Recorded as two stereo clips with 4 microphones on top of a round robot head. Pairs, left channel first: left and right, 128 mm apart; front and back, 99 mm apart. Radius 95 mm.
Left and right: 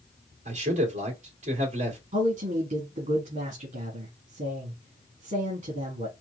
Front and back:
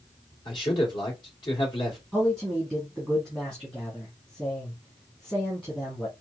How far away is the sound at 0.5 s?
About 2 m.